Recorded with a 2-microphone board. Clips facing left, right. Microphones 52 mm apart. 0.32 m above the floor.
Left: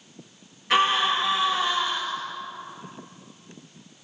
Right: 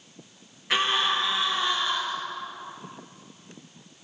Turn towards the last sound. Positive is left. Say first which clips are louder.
# left 4 dB
turn(degrees=0)  # may be behind; listen again after turning